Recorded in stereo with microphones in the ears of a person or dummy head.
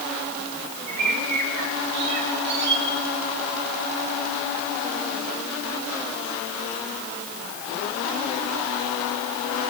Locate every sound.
0.9 s a bird: 65° right (ahead or behind), 8.5 m